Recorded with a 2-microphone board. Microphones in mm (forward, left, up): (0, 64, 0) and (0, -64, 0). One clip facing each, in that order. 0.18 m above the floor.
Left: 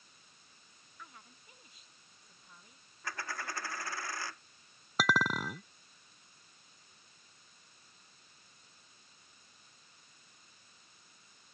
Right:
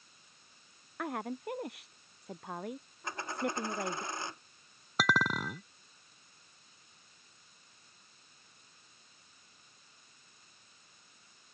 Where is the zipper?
No zipper in this recording.